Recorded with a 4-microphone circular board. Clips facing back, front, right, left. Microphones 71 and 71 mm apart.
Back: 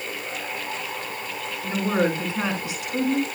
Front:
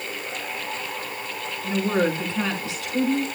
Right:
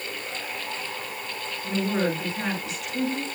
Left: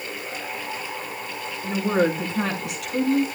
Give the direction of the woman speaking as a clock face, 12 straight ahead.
9 o'clock.